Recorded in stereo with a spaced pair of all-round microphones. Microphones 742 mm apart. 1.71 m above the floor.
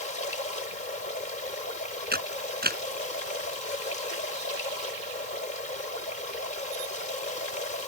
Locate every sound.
0.0 s running water: 80° left
2.1 s a camera shutter: 10° right (ahead or behind)